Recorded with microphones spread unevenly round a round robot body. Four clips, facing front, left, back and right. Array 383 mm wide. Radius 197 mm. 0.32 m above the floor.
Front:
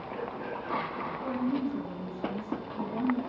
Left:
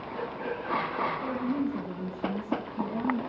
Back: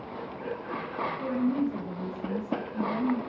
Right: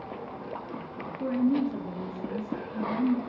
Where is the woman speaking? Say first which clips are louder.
Right 4 dB, back 3 dB; 110° right, 5 m.